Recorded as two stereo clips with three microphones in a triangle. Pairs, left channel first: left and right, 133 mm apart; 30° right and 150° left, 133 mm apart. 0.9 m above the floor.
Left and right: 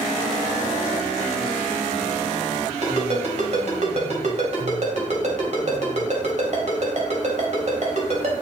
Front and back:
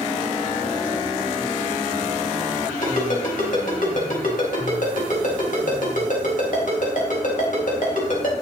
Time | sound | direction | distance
2.8 | a ringtone | 50° right | 3.5 m